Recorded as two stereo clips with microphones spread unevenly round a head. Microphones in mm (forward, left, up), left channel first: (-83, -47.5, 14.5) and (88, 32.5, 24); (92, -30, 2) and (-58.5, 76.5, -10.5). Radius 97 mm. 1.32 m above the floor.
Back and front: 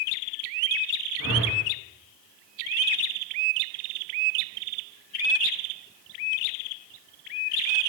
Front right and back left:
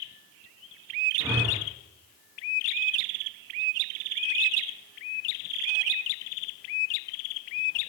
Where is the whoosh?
140° right, 4 m.